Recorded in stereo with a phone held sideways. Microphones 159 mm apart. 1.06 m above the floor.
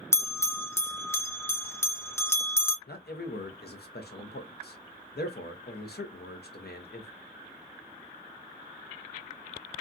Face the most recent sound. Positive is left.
turn(degrees=80)